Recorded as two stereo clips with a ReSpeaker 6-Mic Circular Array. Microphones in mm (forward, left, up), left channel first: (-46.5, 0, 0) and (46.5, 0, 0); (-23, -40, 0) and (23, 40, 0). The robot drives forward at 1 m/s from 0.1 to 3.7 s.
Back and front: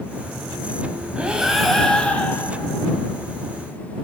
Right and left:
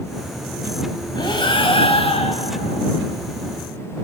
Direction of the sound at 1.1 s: 80° right.